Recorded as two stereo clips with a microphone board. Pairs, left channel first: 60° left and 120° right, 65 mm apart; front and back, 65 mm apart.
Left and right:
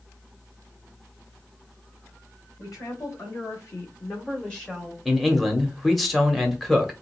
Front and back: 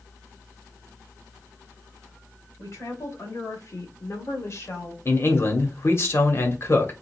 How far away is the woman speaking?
About 3 m.